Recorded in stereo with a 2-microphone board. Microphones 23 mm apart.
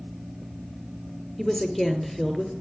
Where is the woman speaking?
10° left (ahead or behind), 1.7 m.